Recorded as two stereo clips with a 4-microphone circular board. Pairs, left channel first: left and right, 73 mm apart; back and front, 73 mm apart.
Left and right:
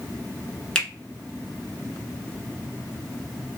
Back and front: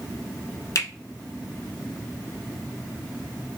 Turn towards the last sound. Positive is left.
turn(degrees=170)